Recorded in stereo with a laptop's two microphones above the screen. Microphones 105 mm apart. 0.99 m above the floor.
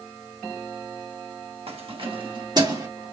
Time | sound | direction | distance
1.7 | keys jangling | 65° right (ahead or behind) | 1.2 m